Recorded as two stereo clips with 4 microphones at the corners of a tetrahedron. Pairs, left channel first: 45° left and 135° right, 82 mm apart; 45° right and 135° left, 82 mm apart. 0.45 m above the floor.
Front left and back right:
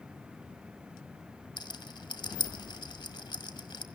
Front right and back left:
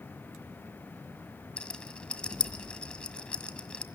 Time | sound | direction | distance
1.6 | a rattle | 30° left | 1.6 m